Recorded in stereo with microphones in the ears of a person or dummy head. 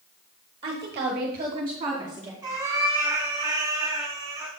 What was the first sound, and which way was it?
A woman speaking, 30° right (ahead or behind).